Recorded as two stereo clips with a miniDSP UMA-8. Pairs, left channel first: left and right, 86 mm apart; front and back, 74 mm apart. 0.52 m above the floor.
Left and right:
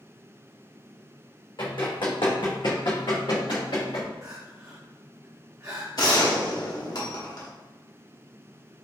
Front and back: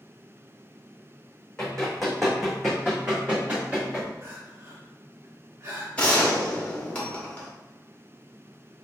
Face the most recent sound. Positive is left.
turn(degrees=70)